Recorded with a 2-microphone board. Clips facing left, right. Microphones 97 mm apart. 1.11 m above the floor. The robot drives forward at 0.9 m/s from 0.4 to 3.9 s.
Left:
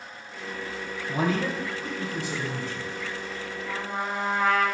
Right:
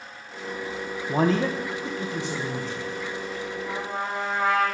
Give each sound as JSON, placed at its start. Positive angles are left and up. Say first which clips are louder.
{"t": 1.1, "sound": "a man speaking", "louder": "right 4 dB", "side_deg": -40, "distance_m": 0.7}
{"t": 3.6, "sound": "a trumpet", "louder": "left 1 dB", "side_deg": -20, "distance_m": 3.0}